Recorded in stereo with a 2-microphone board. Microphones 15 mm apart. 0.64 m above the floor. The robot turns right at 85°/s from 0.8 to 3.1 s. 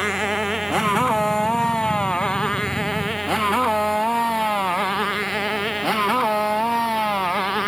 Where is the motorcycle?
25° right (ahead or behind); by 7.7 s centre (ahead or behind).